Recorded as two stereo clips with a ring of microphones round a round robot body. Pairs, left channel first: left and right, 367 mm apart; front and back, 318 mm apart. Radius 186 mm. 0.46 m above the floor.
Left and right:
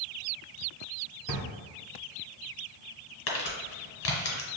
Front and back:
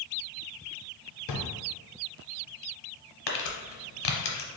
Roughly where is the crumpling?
Ahead left.